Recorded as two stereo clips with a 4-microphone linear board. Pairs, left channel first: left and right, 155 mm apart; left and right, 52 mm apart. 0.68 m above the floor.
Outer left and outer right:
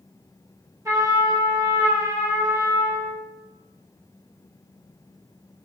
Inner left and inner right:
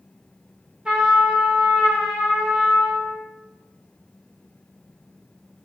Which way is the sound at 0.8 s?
20° right (ahead or behind).